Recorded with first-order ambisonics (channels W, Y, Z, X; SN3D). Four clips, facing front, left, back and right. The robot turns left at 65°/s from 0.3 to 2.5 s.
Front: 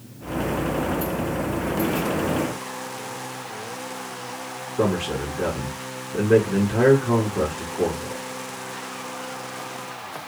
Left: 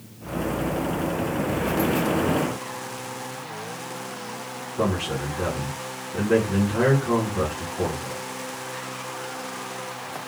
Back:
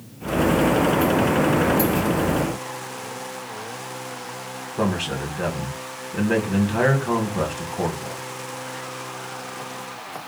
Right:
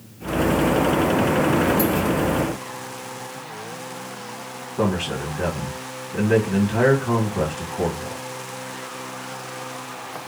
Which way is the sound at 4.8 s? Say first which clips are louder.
Right 2 dB, front 1 dB; 160° right.